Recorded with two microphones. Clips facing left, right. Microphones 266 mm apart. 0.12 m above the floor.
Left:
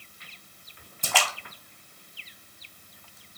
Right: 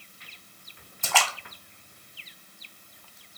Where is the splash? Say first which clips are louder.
Right 1 dB; 35° left (ahead or behind), 0.8 m.